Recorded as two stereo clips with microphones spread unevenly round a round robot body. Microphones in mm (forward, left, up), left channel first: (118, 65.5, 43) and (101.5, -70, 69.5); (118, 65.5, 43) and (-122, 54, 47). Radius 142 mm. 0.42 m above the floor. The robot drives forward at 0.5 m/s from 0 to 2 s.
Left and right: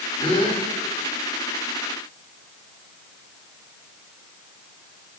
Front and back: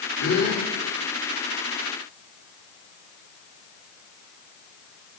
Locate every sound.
0.2 s a gasp: 30° left, 9.5 m